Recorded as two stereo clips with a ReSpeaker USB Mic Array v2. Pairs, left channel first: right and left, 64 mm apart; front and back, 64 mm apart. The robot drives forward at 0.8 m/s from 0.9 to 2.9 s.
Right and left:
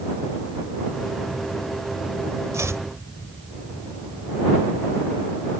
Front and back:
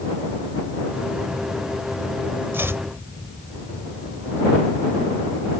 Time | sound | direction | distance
2.5 | chopping | 130° left | ?